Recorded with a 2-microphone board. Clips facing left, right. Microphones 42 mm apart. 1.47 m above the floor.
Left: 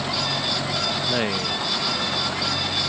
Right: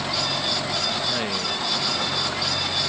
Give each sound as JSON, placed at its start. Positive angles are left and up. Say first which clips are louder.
{"t": 1.1, "sound": "a man speaking", "louder": "left 2 dB", "side_deg": 25}